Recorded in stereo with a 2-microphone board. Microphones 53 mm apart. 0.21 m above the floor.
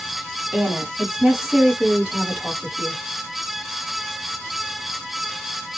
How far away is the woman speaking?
About 1.3 m.